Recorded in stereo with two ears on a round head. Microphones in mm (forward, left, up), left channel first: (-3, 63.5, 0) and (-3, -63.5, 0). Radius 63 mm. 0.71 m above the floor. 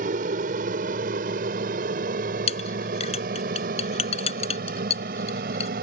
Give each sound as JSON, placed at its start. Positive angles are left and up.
{"t": 0.0, "sound": "an aircraft", "side_deg": -60}
{"t": 2.5, "sound": "a clink", "side_deg": 45}